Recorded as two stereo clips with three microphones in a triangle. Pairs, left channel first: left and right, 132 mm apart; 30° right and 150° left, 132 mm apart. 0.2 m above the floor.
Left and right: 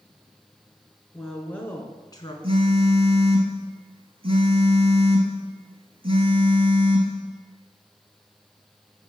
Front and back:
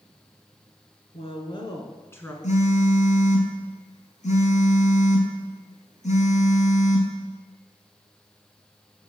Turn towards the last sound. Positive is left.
turn(degrees=-45)